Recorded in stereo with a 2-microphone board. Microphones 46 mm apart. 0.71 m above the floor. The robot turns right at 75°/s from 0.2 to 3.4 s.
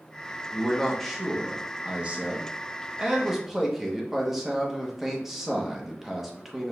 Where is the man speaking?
20° left (ahead or behind), 0.8 m; by 6.7 s 5° right (ahead or behind), 0.8 m.